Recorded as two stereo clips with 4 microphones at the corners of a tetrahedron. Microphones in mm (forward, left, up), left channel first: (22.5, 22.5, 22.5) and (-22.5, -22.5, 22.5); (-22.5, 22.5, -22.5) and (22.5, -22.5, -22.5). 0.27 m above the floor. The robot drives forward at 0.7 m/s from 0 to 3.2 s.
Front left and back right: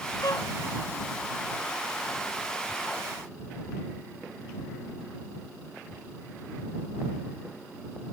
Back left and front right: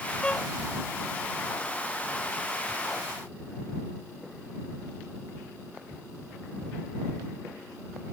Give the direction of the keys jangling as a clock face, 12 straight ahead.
I don't hear keys jangling.